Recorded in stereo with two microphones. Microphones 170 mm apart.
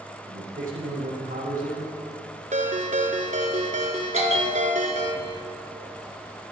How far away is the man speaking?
About 7 m.